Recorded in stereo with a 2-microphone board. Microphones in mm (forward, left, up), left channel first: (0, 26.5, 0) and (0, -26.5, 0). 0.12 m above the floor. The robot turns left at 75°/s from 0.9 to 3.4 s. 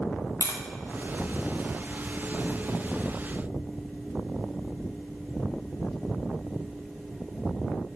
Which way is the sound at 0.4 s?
85° left.